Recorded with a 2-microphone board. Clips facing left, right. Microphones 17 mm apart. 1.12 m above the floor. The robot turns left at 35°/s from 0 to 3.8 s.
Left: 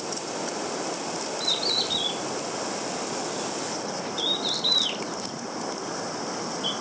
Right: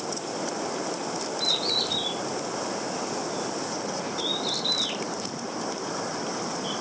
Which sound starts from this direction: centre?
A bird, at 1.4 s.